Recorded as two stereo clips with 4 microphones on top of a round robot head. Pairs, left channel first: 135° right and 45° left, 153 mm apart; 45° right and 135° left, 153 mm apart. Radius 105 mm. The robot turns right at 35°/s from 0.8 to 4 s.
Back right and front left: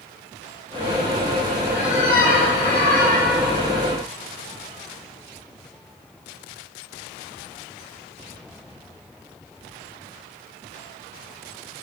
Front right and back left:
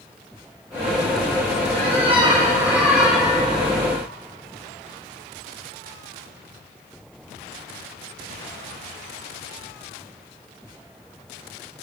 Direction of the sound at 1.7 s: 175° left.